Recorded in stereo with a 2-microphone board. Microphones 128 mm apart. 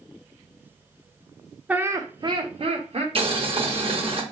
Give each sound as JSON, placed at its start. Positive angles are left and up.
{"t": 1.7, "sound": "laughter", "side_deg": -10, "distance_m": 0.7}
{"t": 3.1, "sound": "boiling", "side_deg": -45, "distance_m": 1.0}